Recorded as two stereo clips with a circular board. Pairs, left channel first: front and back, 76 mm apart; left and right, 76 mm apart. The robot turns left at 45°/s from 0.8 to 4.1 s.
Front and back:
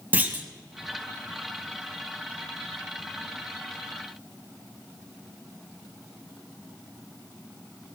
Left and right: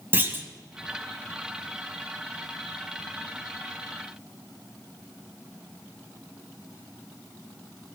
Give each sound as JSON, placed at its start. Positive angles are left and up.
{"t": 0.1, "sound": "a clunk", "azimuth_deg": -130, "distance_m": 1.1}